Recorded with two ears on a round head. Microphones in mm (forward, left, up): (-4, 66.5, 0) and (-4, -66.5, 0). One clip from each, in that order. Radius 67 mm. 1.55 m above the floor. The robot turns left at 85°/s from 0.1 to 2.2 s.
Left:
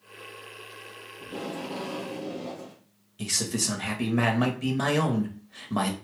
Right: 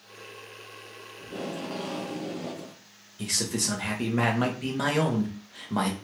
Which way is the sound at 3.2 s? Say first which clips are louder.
Even; 5° left (ahead or behind).